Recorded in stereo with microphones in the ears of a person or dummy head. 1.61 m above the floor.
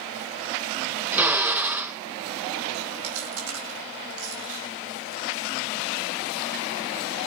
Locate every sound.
1.1 s a drill: 5° right (ahead or behind), 0.6 m
3.0 s chewing: 85° right, 5 m